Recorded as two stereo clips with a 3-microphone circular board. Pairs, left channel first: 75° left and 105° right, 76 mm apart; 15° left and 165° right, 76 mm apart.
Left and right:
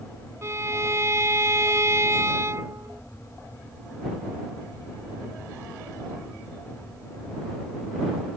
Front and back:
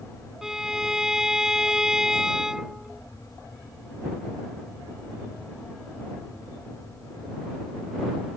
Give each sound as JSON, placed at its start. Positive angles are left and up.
{"t": 0.4, "sound": "a violin", "azimuth_deg": -85}